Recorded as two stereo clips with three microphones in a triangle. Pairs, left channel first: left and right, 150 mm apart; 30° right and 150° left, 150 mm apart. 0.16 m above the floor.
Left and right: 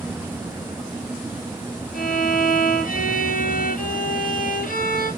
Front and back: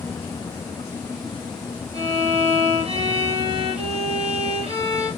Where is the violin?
100° left, 1.4 m.